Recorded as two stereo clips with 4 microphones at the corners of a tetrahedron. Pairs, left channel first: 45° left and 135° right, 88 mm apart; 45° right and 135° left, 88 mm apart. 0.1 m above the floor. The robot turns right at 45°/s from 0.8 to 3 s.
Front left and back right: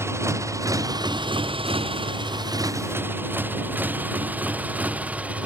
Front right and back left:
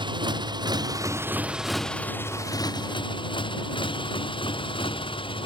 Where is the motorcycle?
165° left; by 5.5 s 60° right.